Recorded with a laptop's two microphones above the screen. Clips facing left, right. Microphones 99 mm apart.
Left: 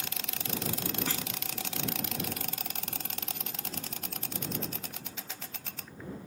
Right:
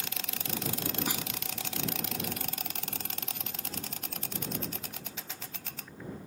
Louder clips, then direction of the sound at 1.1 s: Right 1 dB; 15° right (ahead or behind).